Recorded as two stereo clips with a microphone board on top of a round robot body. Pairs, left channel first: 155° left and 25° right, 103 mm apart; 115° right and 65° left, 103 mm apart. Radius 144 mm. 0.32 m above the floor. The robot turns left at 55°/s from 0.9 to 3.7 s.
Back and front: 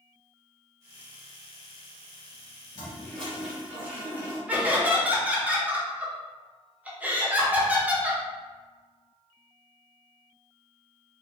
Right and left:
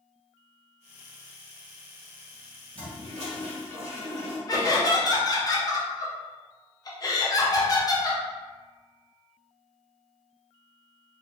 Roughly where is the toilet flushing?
Left.